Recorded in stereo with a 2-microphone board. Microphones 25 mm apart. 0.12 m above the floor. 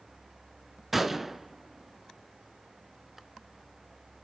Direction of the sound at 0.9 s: 15° right (ahead or behind).